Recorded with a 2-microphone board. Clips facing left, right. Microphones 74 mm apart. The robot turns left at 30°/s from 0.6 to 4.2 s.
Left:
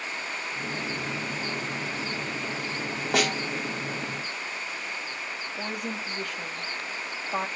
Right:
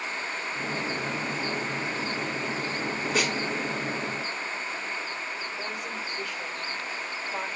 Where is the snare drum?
75° left (ahead or behind), 3.5 m.